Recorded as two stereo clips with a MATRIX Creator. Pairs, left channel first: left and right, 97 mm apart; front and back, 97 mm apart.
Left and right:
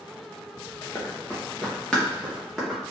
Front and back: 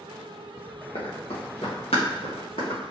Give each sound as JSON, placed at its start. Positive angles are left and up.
{"t": 0.9, "sound": "running footsteps", "azimuth_deg": 20, "distance_m": 1.6}